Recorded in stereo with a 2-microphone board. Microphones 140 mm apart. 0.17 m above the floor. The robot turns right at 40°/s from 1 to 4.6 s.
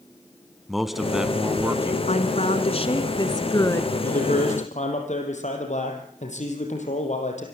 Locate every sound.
0.7 s a man speaking: centre (ahead or behind), 1.2 m; by 2.0 s 20° right (ahead or behind), 1.2 m
2.1 s a woman speaking: 90° left, 1.5 m; by 3.9 s 160° left, 1.5 m
4.0 s a man speaking: 75° left (ahead or behind), 4.5 m; by 7.5 s 55° left (ahead or behind), 4.5 m